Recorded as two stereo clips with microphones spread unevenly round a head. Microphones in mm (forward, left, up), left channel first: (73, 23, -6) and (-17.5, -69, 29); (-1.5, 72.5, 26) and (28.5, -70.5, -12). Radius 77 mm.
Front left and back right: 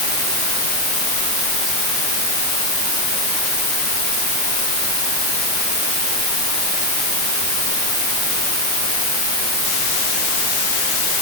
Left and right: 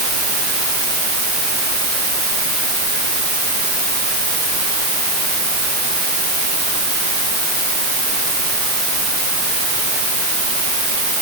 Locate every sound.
Only background noise.